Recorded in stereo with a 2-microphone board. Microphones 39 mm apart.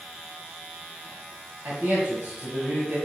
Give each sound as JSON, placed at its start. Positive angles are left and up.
{"t": 1.6, "sound": "a man speaking", "side_deg": -55, "distance_m": 2.0}